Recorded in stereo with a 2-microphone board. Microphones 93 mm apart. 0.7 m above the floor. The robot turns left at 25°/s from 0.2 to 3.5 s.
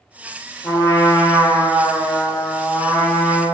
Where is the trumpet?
120° left, 0.8 m; by 3.4 s 50° left, 0.8 m.